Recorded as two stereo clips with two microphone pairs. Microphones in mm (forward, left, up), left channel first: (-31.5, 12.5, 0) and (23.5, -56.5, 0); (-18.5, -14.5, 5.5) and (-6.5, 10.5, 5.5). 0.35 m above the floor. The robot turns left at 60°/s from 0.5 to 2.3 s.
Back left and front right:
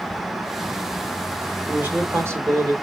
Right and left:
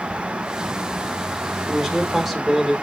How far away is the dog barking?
No dog barking in this recording.